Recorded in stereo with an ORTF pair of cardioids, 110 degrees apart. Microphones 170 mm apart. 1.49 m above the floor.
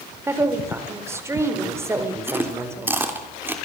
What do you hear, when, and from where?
0.3 s a woman speaking: 15° right, 4.5 m
2.3 s chewing: 10° right, 3 m